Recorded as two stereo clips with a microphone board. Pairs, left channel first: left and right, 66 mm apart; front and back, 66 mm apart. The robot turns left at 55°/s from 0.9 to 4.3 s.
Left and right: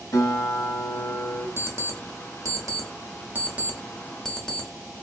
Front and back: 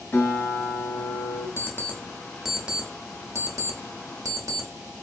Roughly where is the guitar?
Ahead left.